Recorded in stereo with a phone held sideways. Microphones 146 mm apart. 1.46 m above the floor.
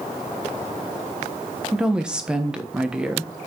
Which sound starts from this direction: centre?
A woman speaking, at 1.7 s.